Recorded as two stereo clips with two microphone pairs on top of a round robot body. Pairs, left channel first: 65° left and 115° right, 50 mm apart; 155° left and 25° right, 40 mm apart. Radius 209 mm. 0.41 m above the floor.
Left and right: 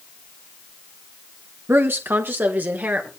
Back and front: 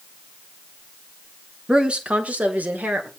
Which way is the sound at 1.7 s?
95° right.